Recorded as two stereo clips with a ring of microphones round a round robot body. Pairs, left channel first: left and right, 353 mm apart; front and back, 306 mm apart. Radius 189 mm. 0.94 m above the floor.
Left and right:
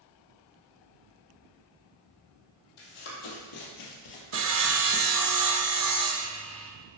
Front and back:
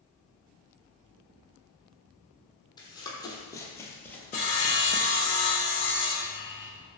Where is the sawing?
55° right, 0.7 m.